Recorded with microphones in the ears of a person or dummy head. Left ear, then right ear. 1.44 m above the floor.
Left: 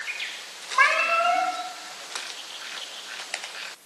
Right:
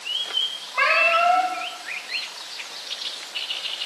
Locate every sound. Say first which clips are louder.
0.7 s a cat meowing: right 2 dB; 20° right (ahead or behind), 1.9 m